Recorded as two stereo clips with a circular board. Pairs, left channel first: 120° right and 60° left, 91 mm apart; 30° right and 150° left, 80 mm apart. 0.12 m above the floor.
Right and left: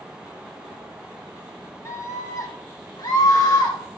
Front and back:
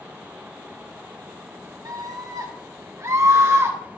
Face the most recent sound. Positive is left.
turn(degrees=-155)